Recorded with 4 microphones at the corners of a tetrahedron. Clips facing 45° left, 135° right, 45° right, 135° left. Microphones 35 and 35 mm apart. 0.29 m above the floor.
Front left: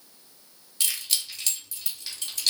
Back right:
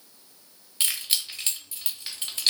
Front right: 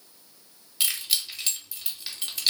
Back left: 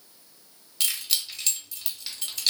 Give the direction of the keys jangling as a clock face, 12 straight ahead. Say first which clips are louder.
Back right 1 dB, front right 1 dB; 4 o'clock.